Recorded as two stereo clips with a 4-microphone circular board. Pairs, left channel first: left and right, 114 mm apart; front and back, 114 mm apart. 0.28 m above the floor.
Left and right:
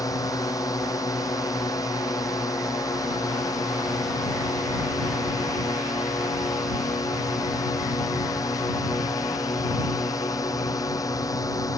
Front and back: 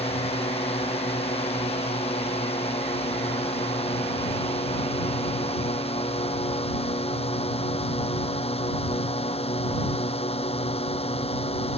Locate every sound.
0.0 s a drone: 30° left